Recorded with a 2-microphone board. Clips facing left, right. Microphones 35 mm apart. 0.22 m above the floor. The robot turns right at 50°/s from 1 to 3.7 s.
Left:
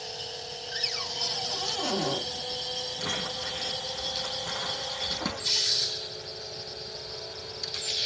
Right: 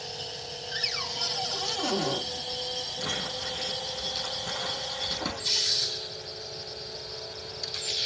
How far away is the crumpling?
About 3 m.